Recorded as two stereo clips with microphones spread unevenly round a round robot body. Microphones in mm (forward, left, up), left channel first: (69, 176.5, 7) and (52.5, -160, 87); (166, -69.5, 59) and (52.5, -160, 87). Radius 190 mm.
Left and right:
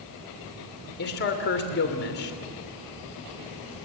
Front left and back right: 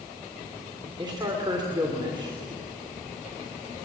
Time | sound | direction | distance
1.0 | a man speaking | 145° left | 3 m